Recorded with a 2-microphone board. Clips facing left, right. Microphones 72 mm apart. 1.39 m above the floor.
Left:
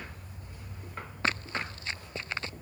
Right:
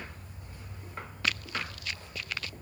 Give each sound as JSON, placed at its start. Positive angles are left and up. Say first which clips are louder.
{"t": 1.2, "sound": "running footsteps", "louder": "left 2 dB", "side_deg": 30}